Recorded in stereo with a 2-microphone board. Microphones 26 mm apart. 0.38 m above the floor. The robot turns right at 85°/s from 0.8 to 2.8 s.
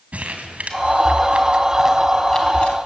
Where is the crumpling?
60° right (ahead or behind), 2.5 m; by 2.8 s 55° left (ahead or behind), 2.5 m.